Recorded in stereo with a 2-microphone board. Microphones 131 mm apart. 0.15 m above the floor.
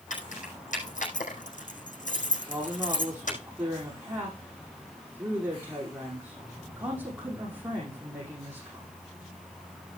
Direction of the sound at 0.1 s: 80° left.